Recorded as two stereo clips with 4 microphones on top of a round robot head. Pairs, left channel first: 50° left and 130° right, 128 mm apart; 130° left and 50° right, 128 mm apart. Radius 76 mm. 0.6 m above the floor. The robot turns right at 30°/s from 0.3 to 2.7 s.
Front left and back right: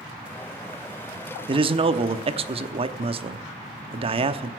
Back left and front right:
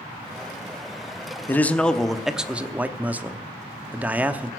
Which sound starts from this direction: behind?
A man speaking, at 1.5 s.